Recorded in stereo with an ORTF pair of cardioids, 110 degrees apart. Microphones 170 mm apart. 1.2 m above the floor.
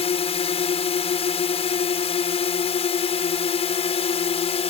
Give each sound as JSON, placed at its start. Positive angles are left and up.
{"t": 0.0, "sound": "a drone", "azimuth_deg": 40}